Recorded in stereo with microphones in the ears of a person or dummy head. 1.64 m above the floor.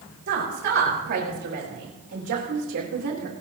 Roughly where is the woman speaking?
Right.